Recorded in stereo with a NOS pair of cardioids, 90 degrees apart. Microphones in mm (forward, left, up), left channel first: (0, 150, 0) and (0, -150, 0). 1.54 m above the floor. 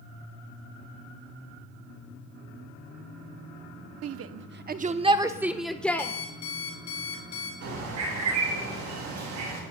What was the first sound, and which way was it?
A shout, 60° right.